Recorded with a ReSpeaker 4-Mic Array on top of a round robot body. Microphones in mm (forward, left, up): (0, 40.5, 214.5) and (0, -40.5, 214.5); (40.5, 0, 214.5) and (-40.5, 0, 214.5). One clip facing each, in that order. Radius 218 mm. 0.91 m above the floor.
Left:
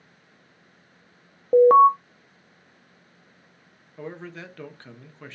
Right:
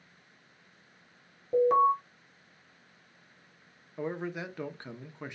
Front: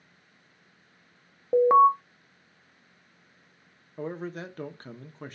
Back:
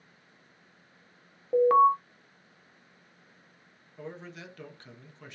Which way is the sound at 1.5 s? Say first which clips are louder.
Left 10 dB, front 2 dB; 70° left.